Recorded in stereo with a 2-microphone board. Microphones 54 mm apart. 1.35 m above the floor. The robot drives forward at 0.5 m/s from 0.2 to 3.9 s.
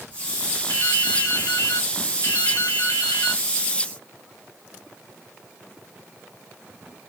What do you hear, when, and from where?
0.7 s dripping: 65° left (ahead or behind), 4 m; by 3.4 s 85° left, 4 m